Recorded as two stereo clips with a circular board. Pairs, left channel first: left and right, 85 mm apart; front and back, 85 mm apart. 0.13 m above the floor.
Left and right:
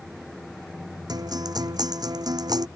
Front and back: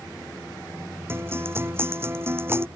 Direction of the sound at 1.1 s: 120° right.